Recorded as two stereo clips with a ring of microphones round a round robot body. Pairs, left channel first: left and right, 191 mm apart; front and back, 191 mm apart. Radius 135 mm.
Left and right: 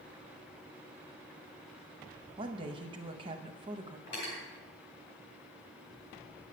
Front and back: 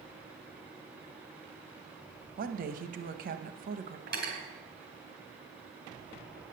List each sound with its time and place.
2.4 s a woman speaking: 150° right, 0.6 m
4.1 s cutlery clinking: 145° left, 3.5 m